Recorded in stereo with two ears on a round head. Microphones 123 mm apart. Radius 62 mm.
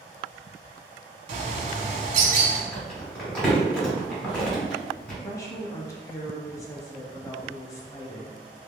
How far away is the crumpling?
About 2.0 m.